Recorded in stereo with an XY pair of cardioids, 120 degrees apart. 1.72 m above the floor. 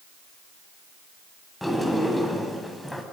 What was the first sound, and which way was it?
A sliding door, 5° left.